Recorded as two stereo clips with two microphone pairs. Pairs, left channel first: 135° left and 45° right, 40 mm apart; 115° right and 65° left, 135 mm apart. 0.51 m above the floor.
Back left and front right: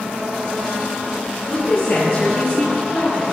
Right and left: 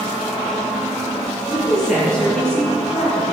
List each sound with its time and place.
1.5 s a woman speaking: 160° left, 5 m; by 3.2 s 170° left, 5.5 m